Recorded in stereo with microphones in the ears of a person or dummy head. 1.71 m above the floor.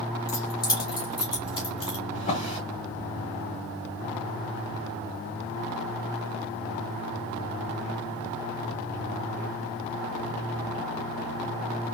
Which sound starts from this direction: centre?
Keys jangling, at 0.3 s.